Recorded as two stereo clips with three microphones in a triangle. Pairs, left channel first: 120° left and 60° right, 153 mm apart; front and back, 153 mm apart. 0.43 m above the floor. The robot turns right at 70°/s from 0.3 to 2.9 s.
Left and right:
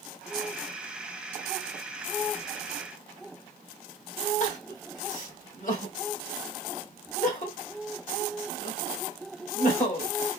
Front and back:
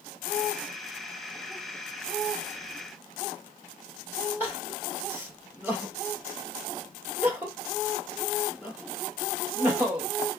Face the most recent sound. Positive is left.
turn(degrees=105)